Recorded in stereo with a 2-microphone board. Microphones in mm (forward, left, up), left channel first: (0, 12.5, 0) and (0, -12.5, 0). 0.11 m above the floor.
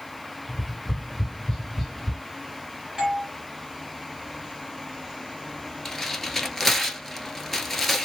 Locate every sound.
0.5 s tapping: 10° left (ahead or behind), 2 m
3.0 s a doorbell: 15° right (ahead or behind), 1.6 m
5.8 s tearing paper: 10° left (ahead or behind), 0.8 m